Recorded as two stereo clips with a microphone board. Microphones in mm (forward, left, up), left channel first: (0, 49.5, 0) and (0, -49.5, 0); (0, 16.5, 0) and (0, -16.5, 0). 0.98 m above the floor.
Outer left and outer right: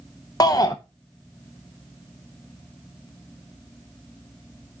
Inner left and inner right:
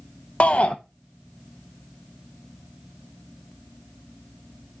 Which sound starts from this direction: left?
A shout, at 0.4 s.